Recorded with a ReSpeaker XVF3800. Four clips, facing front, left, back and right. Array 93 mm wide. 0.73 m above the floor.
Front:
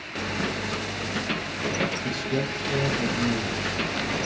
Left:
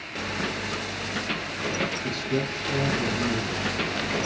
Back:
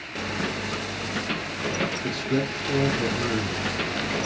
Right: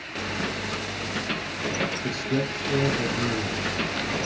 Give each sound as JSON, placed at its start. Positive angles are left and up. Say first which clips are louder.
{"t": 2.0, "sound": "a man speaking", "louder": "right 1 dB, back 2 dB", "azimuth_deg": -170, "distance_m": 3.0}